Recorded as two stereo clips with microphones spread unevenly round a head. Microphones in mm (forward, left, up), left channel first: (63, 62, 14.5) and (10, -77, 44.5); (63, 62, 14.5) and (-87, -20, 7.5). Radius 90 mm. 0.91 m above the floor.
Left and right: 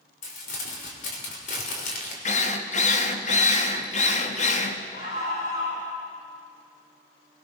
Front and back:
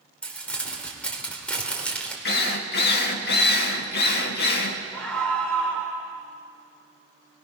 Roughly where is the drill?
Ahead left.